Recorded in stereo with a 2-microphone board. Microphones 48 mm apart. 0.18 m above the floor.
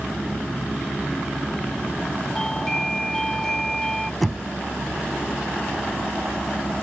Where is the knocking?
Centre (ahead or behind).